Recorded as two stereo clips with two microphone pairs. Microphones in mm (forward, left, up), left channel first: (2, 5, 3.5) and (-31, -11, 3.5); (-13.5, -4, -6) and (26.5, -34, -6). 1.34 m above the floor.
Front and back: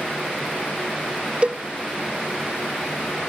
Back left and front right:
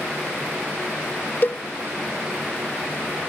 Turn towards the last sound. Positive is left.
turn(degrees=165)